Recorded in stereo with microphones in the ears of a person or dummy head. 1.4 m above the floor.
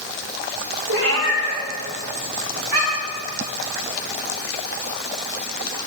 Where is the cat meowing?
65° right (ahead or behind), 1.9 m; by 3.2 s 45° right (ahead or behind), 4 m.